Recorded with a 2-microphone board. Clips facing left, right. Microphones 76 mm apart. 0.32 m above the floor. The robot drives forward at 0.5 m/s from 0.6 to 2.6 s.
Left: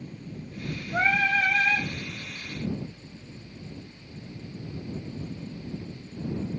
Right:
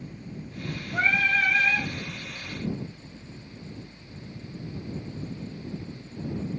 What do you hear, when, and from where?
0.9 s singing: 45° left (ahead or behind), 1.6 m; by 1.9 s 40° left (ahead or behind), 1.8 m